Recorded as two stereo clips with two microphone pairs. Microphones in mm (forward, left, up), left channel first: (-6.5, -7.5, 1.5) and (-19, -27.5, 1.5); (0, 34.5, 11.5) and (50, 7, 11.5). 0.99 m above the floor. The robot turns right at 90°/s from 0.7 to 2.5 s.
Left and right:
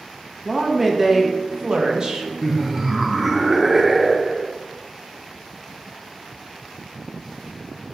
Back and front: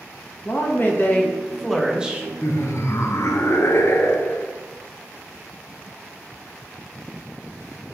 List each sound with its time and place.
0.5 s a woman speaking: 150° left, 0.8 m; by 2.3 s 65° right, 0.8 m
2.4 s laughter: 155° left, 0.5 m; by 4.5 s 165° left, 0.5 m